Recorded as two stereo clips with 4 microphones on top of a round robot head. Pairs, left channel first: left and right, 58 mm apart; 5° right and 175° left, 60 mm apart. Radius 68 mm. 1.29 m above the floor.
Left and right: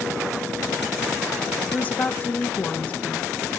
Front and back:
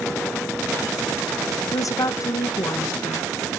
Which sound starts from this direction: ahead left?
A woman speaking, at 1.7 s.